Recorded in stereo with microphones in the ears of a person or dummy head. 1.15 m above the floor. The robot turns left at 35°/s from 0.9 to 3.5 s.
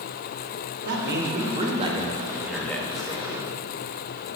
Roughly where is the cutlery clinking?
No cutlery clinking in this recording.